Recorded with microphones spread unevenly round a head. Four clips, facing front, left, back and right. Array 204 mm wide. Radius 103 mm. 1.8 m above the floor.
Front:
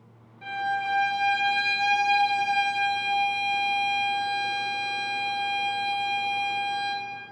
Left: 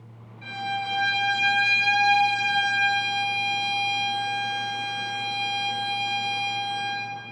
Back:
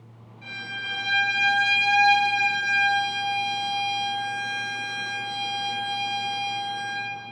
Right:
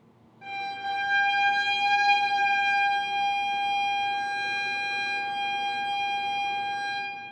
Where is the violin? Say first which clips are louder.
Left 3 dB, front 9 dB; 45° right, 3.5 m.